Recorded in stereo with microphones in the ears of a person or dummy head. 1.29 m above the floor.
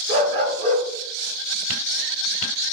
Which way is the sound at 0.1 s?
35° right (ahead or behind).